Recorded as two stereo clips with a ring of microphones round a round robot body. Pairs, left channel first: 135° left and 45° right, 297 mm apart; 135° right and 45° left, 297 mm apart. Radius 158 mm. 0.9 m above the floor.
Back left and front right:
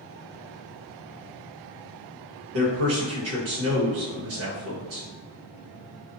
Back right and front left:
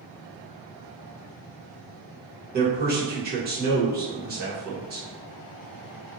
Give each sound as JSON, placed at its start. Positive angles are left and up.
{"t": 2.5, "sound": "a man speaking", "azimuth_deg": -10, "distance_m": 1.2}